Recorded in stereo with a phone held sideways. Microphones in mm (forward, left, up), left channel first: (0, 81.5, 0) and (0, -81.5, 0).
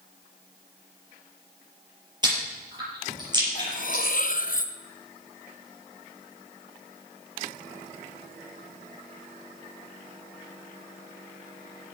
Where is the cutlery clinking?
55° left (ahead or behind), 0.8 m.